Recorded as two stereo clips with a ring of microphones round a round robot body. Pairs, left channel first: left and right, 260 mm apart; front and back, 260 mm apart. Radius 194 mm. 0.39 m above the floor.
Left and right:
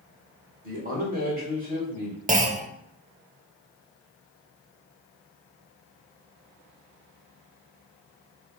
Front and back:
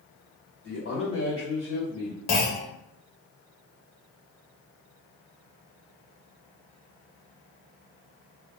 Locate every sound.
0.6 s a man speaking: 35° right, 1.5 m
2.3 s a clunk: 25° right, 0.6 m